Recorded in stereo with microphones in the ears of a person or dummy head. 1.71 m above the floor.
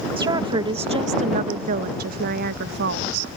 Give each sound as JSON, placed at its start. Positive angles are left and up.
{"t": 0.2, "sound": "a woman speaking", "side_deg": -25}